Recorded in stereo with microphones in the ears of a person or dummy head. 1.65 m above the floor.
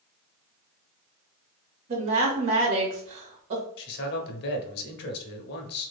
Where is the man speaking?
60° left (ahead or behind), 1.1 m.